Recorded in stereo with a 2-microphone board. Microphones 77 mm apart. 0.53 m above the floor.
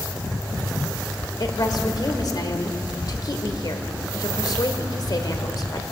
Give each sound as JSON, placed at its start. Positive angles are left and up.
{"t": 1.4, "sound": "a woman speaking", "side_deg": 55, "distance_m": 2.0}